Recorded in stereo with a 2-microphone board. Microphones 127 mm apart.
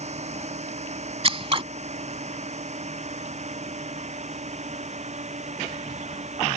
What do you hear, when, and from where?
0.0 s a drone: 55° right (ahead or behind)
1.2 s scissors: 45° right (ahead or behind)